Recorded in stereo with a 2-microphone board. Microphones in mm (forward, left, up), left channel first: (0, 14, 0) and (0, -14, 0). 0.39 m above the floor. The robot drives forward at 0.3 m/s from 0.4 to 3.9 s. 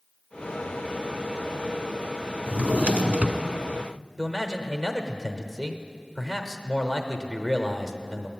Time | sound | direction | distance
2.5 | a drawer | 45° right (ahead or behind) | 0.9 m
4.2 | a man speaking | 10° right (ahead or behind) | 0.9 m